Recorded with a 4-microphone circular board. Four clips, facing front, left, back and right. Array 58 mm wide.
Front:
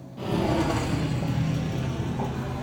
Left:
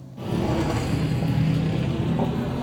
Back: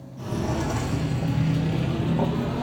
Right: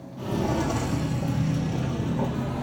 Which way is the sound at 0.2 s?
20° left.